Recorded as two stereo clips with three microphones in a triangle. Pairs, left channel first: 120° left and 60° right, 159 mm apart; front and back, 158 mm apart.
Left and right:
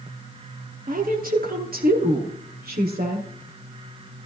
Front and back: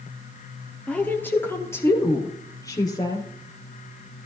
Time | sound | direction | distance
0.9 | a woman speaking | 80° right | 3 m